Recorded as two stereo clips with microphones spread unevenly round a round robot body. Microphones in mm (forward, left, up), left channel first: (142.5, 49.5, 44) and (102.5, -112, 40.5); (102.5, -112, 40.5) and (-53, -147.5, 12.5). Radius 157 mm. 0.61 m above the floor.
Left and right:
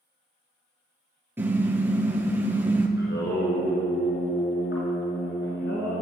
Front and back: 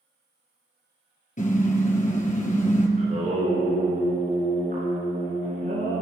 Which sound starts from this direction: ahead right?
A car horn, at 1.4 s.